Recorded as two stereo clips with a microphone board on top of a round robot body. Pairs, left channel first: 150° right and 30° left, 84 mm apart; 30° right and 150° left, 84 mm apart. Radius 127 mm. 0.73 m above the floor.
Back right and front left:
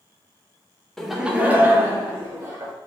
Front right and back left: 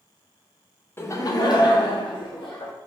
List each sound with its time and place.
1.0 s laughter: 70° right, 0.6 m; by 2.7 s 20° right, 1.5 m